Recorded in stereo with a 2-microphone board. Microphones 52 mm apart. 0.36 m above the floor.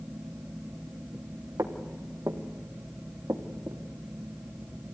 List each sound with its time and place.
1.6 s footsteps: 80° right, 3.5 m; by 3.8 s 60° right (ahead or behind), 3 m